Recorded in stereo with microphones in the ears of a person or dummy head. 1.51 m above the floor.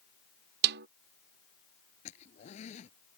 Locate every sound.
0.6 s a snare drum: 60° right (ahead or behind)
2.0 s a zipper: 40° left (ahead or behind)